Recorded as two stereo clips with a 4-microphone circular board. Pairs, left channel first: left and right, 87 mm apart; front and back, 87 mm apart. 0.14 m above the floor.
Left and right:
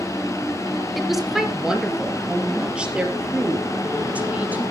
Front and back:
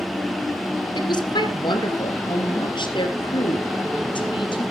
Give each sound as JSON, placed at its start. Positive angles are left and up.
{"t": 0.9, "sound": "a woman speaking", "azimuth_deg": 0, "distance_m": 2.0}